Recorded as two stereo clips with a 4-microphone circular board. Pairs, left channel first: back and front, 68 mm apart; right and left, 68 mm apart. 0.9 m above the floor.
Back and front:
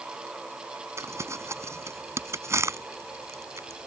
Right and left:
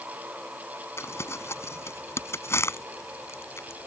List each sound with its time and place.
1.0 s crumpling: 45° right